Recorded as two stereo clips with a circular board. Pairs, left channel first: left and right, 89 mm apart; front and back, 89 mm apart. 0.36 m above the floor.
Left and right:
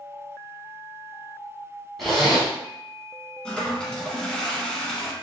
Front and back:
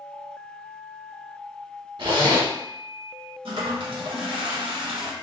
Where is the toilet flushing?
170° left, 0.8 m.